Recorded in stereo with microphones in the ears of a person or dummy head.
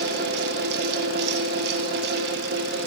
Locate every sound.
0.0 s a fan: 60° right (ahead or behind), 1.4 m